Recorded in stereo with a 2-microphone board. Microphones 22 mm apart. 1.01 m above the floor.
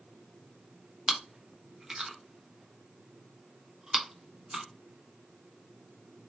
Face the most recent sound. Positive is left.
turn(degrees=-35)  # may be behind; listen again after turning